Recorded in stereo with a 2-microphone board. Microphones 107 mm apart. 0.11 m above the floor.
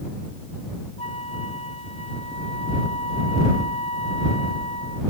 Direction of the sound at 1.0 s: 75° left (ahead or behind).